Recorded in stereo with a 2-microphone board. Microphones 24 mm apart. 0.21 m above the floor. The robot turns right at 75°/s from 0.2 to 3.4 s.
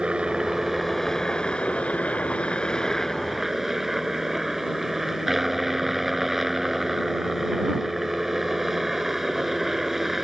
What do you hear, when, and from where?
0.0 s a helicopter: 55° right; by 10.2 s 175° right